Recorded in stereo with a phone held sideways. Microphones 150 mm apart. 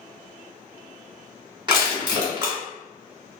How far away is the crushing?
About 1.1 m.